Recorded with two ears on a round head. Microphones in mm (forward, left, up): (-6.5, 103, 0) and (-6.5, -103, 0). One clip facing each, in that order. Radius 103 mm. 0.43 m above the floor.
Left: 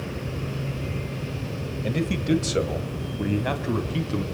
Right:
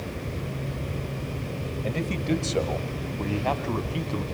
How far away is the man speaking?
About 1.5 m.